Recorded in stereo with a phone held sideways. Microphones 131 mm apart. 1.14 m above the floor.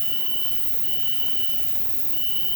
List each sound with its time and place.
0.0 s an insect: 80° right, 1.6 m